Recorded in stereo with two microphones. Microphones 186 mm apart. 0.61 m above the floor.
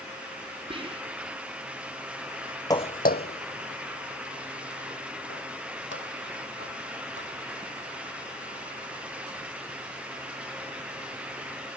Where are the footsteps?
20° left (ahead or behind); by 7.4 s 80° left.